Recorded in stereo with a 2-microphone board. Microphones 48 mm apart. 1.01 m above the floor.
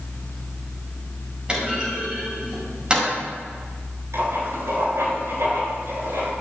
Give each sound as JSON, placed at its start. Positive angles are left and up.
{"t": 1.5, "sound": "a clunk", "side_deg": -20, "distance_m": 8.5}
{"t": 4.1, "sound": "writing", "side_deg": -70, "distance_m": 8.0}